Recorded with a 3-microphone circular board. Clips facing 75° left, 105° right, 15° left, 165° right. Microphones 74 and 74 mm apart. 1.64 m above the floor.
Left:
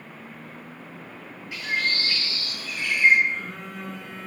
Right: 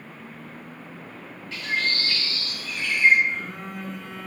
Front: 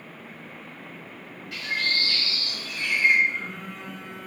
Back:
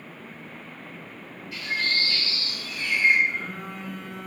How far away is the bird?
About 0.7 m.